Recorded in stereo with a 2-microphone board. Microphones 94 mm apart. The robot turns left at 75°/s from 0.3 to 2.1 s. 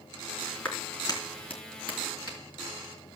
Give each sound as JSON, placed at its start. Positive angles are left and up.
{"t": 0.7, "sound": "a clap", "side_deg": 10, "distance_m": 3.5}